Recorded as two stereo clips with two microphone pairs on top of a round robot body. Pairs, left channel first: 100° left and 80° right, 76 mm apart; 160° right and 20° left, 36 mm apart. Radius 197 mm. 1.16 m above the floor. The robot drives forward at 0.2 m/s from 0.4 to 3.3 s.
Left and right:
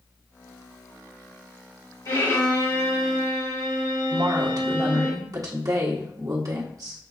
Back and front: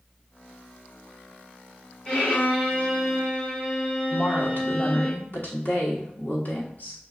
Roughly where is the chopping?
No chopping in this recording.